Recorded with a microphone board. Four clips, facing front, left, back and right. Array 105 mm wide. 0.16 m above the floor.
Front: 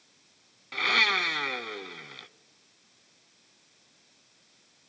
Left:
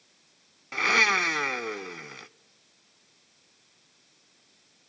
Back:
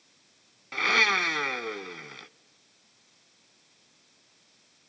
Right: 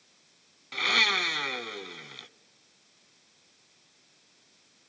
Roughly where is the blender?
Left.